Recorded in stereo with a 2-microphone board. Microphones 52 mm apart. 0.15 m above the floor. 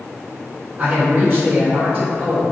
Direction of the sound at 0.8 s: 30° right (ahead or behind).